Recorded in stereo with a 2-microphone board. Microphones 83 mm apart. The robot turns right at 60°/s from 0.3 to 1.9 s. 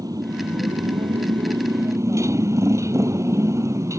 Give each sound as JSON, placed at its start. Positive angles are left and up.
{"t": 0.0, "sound": "a motorcycle", "azimuth_deg": -135}